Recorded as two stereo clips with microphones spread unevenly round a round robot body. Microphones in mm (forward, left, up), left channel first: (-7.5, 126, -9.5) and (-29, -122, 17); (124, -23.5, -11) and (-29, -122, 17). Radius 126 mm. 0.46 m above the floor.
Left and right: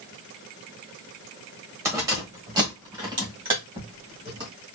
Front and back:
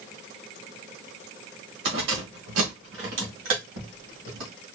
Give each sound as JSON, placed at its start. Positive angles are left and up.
{"t": 1.9, "sound": "keys jangling", "azimuth_deg": -175, "distance_m": 1.5}